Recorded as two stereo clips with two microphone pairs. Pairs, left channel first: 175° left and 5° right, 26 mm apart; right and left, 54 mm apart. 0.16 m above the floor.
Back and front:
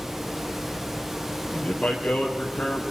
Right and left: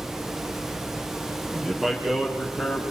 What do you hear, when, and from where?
1.5 s a man speaking: 175° left, 3.5 m